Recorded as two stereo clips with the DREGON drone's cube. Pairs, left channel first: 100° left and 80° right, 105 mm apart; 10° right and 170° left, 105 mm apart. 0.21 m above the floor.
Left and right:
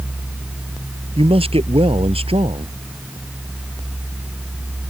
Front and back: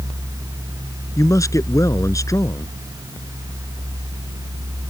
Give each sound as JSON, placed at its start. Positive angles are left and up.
{"t": 1.2, "sound": "a man speaking", "azimuth_deg": -65}